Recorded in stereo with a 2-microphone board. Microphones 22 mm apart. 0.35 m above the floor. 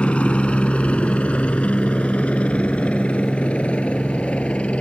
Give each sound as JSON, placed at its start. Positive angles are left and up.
{"t": 0.0, "sound": "a helicopter", "side_deg": 65}